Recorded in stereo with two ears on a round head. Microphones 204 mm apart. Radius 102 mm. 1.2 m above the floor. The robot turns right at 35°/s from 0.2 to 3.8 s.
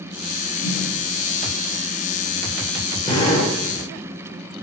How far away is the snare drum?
About 3.5 m.